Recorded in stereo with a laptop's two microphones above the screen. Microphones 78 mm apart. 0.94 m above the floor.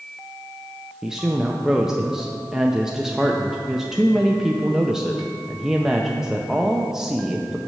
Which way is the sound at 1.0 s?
5° right (ahead or behind).